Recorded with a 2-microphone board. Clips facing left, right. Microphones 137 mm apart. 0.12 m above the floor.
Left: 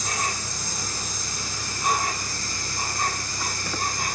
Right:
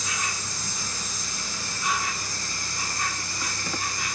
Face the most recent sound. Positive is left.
turn(degrees=45)  # may be behind; listen again after turning